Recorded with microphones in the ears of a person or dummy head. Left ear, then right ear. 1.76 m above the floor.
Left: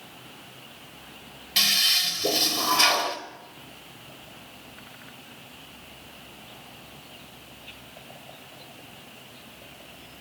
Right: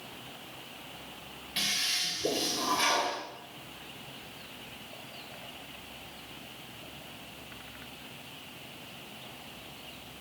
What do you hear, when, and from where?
1.6 s a toilet flushing: 35° left (ahead or behind), 1.8 m